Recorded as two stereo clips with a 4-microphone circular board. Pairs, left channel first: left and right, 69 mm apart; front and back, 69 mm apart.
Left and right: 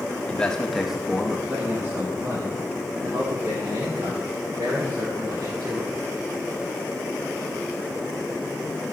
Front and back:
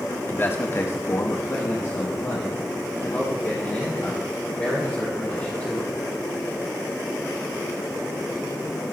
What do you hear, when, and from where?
0.3 s a man speaking: 35° left, 1.1 m; by 5.9 s 60° right, 4.5 m